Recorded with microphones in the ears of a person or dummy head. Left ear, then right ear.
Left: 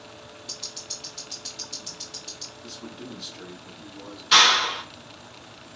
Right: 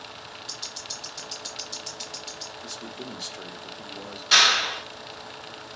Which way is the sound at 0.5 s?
15° right (ahead or behind).